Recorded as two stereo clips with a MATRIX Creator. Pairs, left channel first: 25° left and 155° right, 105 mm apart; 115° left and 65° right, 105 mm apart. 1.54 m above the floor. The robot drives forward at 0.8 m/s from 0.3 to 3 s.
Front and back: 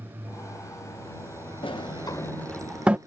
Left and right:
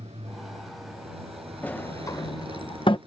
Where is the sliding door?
40° left; by 3.0 s 130° left.